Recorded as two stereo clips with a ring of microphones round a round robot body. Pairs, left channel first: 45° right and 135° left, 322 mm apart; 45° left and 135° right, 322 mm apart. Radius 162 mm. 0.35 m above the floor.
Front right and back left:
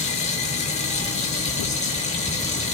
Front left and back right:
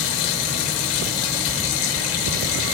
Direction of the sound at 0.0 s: 25° left.